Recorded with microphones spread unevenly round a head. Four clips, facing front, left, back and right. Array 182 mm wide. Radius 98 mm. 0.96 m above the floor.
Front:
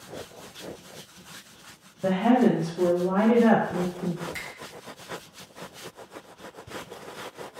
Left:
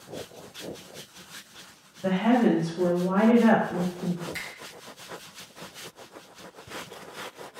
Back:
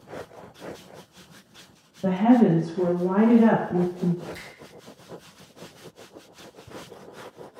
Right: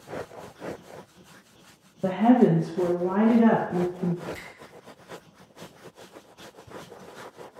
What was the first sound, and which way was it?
A woman speaking, 75° right.